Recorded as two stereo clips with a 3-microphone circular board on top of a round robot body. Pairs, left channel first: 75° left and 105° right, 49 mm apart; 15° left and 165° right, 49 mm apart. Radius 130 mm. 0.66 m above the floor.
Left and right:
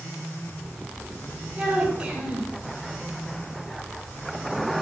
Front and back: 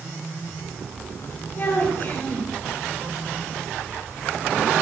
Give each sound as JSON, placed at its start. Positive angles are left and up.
{"t": 1.6, "sound": "a child speaking", "azimuth_deg": -35, "distance_m": 4.5}